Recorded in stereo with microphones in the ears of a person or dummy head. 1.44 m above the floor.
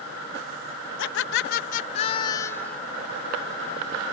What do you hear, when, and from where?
1.0 s laughter: 75° left (ahead or behind); by 2.8 s 5° left (ahead or behind)